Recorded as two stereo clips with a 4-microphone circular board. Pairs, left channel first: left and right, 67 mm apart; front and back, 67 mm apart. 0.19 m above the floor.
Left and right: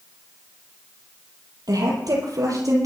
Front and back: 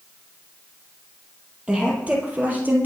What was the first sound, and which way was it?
A woman speaking, 105° right.